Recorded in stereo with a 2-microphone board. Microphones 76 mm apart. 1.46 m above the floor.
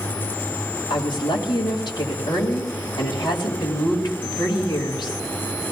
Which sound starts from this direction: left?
A woman speaking, at 0.9 s.